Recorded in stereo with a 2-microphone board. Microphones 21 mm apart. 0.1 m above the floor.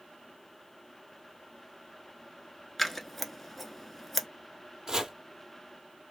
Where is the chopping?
30° right (ahead or behind), 0.7 m.